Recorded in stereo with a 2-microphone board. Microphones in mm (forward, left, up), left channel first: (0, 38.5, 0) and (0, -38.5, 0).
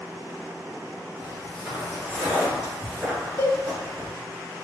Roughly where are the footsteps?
Centre.